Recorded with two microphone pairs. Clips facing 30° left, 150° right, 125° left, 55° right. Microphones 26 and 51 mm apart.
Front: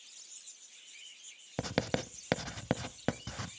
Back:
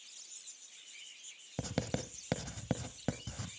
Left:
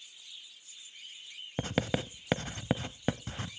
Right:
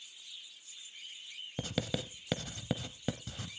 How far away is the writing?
About 0.5 m.